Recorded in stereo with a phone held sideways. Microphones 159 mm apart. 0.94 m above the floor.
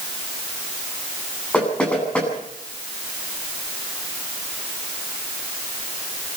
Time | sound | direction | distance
1.5 | knocking | 5° left (ahead or behind) | 9 m